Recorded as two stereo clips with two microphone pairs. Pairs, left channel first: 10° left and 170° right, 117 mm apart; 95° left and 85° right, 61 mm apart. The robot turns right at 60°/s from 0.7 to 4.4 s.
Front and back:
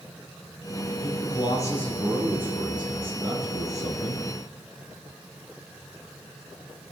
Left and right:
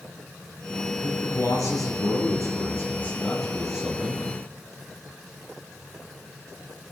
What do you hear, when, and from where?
1.0 s a man speaking: 35° left, 3 m; by 4.3 s 130° right, 3 m